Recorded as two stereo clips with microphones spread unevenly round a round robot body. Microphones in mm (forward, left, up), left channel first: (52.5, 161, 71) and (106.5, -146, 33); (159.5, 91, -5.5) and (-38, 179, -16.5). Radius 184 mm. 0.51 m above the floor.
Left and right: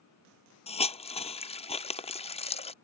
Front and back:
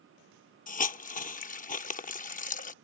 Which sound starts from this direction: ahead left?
A hiss, at 0.7 s.